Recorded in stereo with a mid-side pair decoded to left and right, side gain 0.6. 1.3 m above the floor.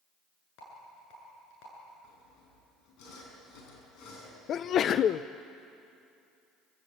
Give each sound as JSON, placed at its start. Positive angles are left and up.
{"t": 0.6, "sound": "a rattle", "azimuth_deg": 70, "distance_m": 8.5}
{"t": 2.0, "sound": "sawing", "azimuth_deg": 60, "distance_m": 7.0}
{"t": 4.5, "sound": "a sneeze", "azimuth_deg": 50, "distance_m": 0.6}